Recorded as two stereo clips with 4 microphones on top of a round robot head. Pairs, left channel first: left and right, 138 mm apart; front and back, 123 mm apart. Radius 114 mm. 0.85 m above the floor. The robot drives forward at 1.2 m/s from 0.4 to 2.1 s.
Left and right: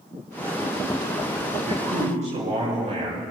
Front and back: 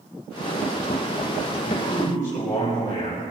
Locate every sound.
1.7 s a man speaking: 55° right, 5.5 m; by 3.2 s 60° right, 5 m